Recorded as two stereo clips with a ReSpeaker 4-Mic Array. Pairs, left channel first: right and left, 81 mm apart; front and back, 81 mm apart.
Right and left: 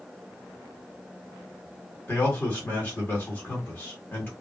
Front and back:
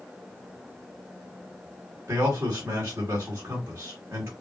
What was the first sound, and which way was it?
A man speaking, 140° right.